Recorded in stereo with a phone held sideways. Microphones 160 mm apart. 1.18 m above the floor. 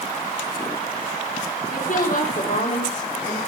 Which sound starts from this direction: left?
A woman speaking, at 1.7 s.